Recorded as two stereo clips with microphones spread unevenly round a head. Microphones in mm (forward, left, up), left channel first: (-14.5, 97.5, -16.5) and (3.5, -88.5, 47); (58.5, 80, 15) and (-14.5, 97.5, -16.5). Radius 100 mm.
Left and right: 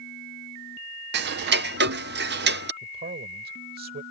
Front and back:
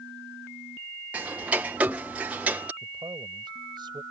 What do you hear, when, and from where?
1.1 s ticking: 125° right
2.8 s a man speaking: 125° right